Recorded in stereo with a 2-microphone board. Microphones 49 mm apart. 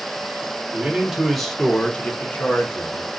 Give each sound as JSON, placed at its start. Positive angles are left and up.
{"t": 0.7, "sound": "a man speaking", "side_deg": -20, "distance_m": 1.1}